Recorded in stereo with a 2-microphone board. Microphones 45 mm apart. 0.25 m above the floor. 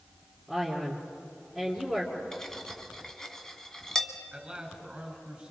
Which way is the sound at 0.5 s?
10° left (ahead or behind).